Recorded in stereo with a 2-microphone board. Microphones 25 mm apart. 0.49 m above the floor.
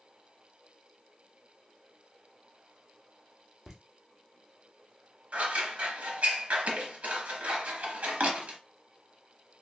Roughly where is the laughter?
Centre.